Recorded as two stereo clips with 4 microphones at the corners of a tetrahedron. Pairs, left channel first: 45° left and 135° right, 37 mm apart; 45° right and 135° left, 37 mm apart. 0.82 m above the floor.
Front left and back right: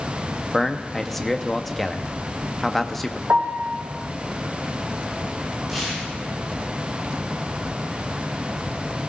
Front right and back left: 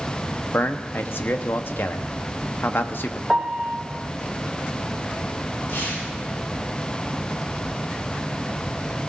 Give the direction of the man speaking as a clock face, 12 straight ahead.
1 o'clock.